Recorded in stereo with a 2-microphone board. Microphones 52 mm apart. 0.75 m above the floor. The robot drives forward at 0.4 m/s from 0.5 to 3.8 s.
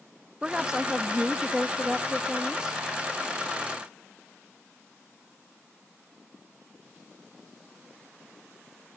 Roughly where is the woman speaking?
Centre.